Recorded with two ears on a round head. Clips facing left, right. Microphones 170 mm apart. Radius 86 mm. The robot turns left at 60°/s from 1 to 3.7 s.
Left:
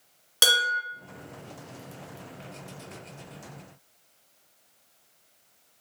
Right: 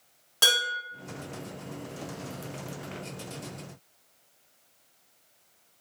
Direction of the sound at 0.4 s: 25° left (ahead or behind).